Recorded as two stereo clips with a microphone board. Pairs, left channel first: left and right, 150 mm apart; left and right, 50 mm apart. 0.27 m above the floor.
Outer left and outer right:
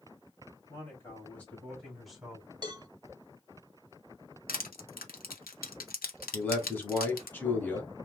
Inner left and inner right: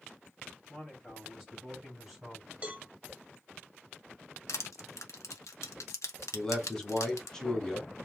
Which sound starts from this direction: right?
A cowbell, at 2.6 s.